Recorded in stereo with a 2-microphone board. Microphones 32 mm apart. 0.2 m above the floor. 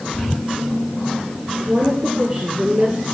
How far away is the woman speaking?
About 3 m.